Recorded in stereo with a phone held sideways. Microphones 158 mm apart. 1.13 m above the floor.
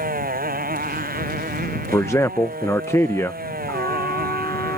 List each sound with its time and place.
0.0 s a motorcycle: 65° right (ahead or behind); by 4.8 s 70° right (ahead or behind)
1.9 s a man speaking: 15° left (ahead or behind)
3.7 s a trumpet: 25° left (ahead or behind)